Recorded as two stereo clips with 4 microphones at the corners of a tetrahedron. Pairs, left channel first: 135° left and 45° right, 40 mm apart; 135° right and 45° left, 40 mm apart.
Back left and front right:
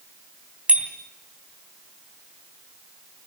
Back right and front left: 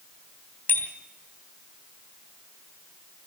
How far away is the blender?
I don't hear a blender.